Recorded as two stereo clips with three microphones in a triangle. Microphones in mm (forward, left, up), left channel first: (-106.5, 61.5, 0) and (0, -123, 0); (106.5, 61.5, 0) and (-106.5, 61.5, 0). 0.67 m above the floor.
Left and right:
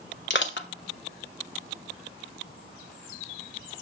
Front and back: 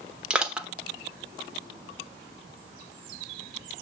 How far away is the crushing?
About 1.1 m.